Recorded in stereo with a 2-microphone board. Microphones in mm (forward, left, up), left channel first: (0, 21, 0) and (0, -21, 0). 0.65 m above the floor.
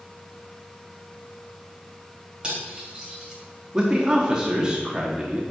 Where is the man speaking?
15° right (ahead or behind), 1.1 m.